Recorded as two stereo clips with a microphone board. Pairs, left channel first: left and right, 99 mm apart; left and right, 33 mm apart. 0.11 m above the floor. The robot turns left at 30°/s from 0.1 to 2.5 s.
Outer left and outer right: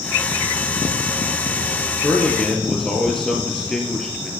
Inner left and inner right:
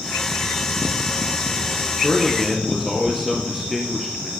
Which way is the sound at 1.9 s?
20° left (ahead or behind).